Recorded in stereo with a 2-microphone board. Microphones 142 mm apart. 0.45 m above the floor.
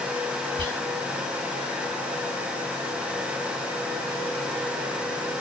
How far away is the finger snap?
No finger snap in this recording.